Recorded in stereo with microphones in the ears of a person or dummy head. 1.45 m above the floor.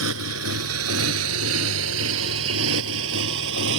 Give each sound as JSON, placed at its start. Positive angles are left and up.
{"t": 0.0, "sound": "a motorcycle", "side_deg": -80}